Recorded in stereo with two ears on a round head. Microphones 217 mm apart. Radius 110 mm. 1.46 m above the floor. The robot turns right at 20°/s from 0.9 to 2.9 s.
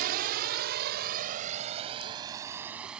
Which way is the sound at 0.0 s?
40° right (ahead or behind).